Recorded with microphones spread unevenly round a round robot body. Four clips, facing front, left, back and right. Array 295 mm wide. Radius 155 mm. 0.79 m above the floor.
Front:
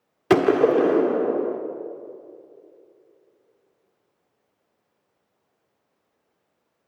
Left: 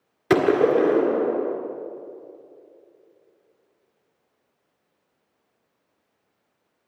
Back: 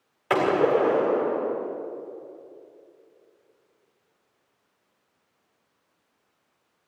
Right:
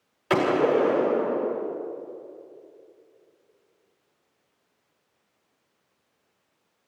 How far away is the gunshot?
About 1.6 m.